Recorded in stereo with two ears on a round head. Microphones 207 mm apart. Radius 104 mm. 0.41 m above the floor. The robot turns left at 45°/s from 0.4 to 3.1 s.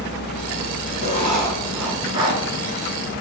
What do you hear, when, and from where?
1.0 s writing: 35° left, 2.5 m; by 2.4 s 30° right, 2.5 m